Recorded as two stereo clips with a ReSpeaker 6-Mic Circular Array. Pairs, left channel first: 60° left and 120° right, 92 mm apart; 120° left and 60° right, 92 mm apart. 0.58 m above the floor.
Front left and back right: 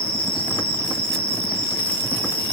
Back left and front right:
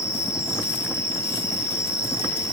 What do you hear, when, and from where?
0.0 s an insect: 60° left, 5.5 m